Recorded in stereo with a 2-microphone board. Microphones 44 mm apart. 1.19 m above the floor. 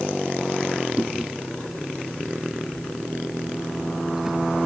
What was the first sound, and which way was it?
Chewing, 10° right (ahead or behind).